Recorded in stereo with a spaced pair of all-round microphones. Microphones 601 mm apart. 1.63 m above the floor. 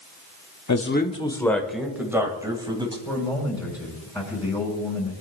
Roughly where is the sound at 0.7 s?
Left.